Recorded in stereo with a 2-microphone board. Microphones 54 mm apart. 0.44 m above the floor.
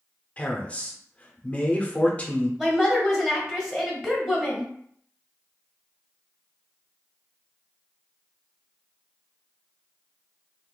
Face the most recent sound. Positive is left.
turn(degrees=-10)  # may be behind; listen again after turning